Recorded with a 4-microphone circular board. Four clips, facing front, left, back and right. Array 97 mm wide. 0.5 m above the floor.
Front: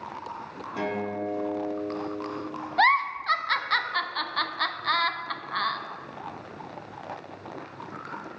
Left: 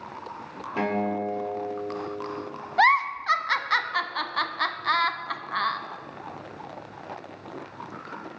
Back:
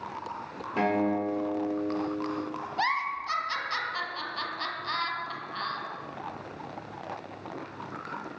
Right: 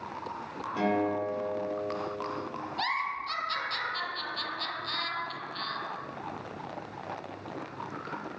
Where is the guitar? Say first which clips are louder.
Left 2 dB, back 4 dB; 130° left, 1.8 m.